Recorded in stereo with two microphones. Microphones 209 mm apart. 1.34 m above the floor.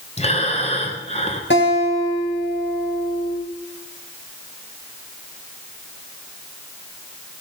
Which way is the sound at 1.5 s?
65° left (ahead or behind).